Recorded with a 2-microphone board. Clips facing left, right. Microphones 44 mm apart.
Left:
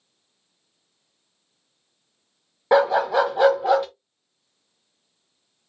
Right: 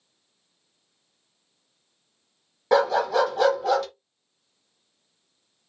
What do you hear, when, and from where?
2.7 s a dog barking: 20° left (ahead or behind), 0.8 m